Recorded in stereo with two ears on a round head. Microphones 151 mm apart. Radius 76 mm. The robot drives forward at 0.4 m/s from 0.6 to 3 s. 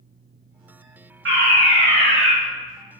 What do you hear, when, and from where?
1.2 s a fire alarm: 80° right, 8.5 m; by 2.3 s 75° right (ahead or behind), 8.5 m